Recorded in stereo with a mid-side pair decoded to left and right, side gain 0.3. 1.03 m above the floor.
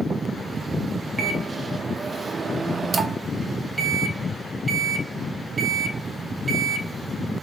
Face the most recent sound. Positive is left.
turn(degrees=-50)